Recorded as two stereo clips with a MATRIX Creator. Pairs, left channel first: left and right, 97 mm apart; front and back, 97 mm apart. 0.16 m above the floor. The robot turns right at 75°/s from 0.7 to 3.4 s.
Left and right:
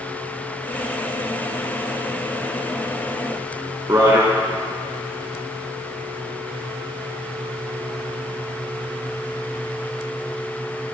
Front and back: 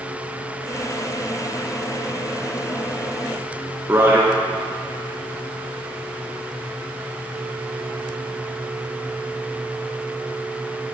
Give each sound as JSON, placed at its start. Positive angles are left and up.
{"t": 3.9, "sound": "a man speaking", "azimuth_deg": -125, "distance_m": 1.6}